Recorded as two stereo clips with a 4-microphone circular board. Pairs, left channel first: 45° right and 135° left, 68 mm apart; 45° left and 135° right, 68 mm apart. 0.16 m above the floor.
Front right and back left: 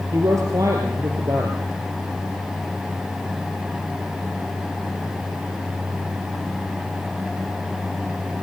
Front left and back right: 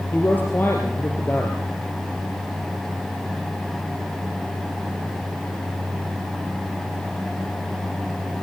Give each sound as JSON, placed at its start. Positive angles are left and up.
{"t": 0.1, "sound": "a man speaking", "azimuth_deg": 105, "distance_m": 3.0}